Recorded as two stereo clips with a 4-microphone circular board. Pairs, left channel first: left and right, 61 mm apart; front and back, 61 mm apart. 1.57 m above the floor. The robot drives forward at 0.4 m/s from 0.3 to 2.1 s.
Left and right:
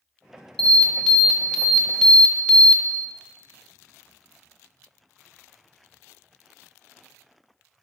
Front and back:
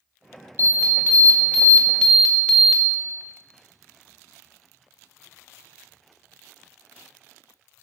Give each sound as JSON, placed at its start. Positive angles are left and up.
{"t": 0.6, "sound": "an alarm", "azimuth_deg": 10, "distance_m": 1.0}